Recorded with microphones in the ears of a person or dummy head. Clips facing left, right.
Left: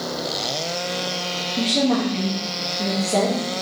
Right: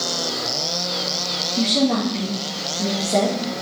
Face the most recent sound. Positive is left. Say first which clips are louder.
# right 1 dB
turn(degrees=-10)  # may be behind; listen again after turning